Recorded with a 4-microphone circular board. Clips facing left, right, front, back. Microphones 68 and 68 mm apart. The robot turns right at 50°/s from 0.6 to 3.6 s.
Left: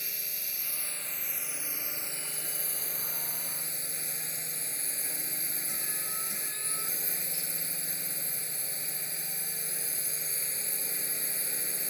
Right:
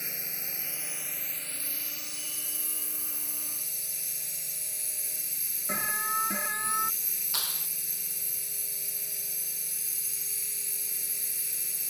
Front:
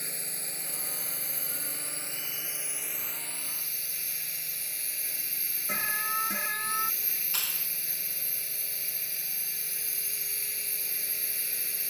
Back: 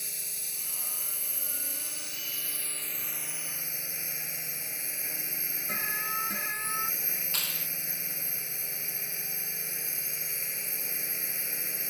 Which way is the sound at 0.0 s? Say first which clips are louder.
Right 3 dB, front 5 dB; 30° right.